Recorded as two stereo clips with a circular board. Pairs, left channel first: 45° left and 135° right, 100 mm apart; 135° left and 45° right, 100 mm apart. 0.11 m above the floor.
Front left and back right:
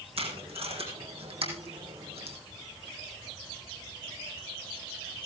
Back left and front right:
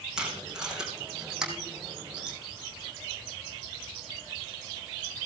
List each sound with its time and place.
0.2 s tape being pulled: 130° right, 4 m